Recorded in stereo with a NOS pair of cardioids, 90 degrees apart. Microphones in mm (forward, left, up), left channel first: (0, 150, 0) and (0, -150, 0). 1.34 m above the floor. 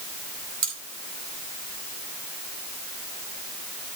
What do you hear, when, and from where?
0.6 s cutlery clinking: 50° right, 4 m